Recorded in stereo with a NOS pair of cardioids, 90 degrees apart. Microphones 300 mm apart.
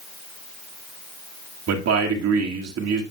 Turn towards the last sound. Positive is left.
turn(degrees=-55)